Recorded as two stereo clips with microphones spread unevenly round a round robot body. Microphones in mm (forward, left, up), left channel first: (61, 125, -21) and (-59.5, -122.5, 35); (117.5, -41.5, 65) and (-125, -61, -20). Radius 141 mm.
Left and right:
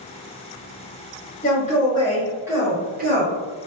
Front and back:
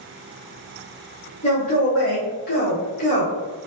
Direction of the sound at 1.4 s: 75° left.